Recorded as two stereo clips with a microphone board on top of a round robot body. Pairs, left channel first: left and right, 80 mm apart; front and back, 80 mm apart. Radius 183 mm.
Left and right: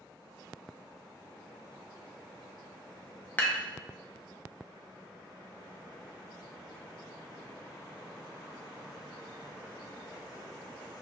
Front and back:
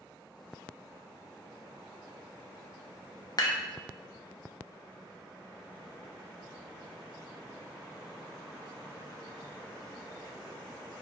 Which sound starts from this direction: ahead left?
Dishes clattering, at 3.4 s.